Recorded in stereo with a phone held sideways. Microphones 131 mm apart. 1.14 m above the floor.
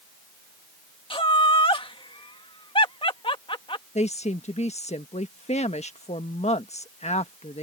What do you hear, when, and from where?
1.1 s laughter: 45° left (ahead or behind)
4.0 s a woman speaking: 65° left (ahead or behind)